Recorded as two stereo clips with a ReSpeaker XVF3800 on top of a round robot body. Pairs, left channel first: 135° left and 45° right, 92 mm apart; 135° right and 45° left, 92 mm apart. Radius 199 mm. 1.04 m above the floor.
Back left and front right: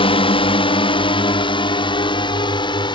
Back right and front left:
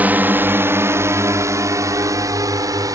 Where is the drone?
120° left; by 3.0 s 100° left.